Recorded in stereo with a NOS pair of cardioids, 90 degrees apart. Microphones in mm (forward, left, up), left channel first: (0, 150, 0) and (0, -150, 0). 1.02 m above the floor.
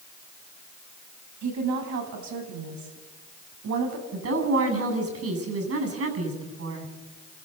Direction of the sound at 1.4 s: 70° right.